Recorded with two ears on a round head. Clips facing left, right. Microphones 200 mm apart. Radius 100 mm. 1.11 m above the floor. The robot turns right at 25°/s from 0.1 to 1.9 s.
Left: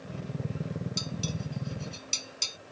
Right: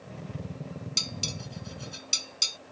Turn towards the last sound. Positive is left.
turn(degrees=-15)  # may be behind; listen again after turning